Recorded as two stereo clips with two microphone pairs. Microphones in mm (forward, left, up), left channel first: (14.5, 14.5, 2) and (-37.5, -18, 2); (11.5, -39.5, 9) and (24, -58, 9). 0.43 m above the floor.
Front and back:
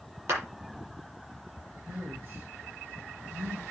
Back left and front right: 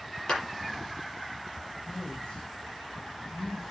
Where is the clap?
175° left, 8 m.